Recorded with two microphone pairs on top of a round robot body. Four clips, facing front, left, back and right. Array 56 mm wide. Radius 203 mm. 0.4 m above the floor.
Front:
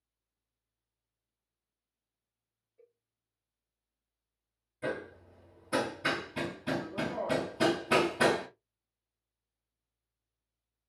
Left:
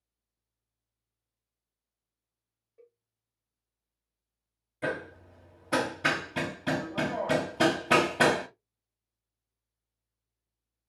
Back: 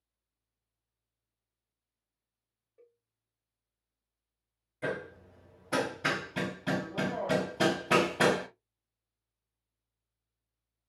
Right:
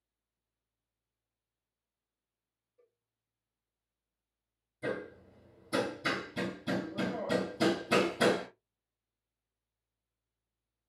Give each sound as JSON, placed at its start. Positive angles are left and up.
{"t": 2.8, "sound": "a cowbell", "azimuth_deg": 125, "distance_m": 3.0}
{"t": 4.8, "sound": "hammering", "azimuth_deg": 110, "distance_m": 1.7}